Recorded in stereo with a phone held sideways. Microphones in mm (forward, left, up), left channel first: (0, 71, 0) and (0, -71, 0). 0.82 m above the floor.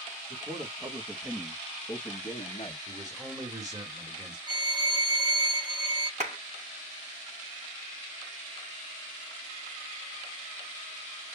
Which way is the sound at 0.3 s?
35° right (ahead or behind).